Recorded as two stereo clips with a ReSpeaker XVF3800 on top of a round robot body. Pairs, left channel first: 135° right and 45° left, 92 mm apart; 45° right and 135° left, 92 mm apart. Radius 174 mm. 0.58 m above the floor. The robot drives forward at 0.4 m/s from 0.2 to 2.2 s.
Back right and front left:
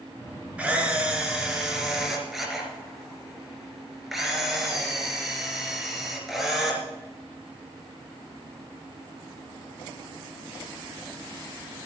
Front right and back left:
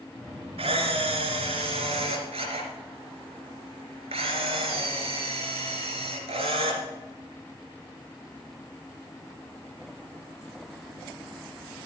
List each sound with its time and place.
0.6 s a camera shutter: 120° left, 2.5 m; by 6.8 s 135° left, 2.5 m